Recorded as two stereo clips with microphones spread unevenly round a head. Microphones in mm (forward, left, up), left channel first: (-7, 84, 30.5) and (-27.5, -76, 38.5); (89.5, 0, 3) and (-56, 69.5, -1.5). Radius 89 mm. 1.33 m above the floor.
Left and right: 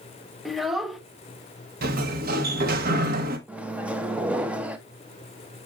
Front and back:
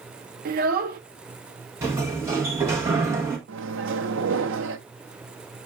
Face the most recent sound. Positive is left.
turn(degrees=180)